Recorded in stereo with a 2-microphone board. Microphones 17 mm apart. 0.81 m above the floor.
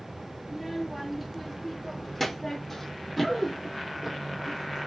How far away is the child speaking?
About 1.9 m.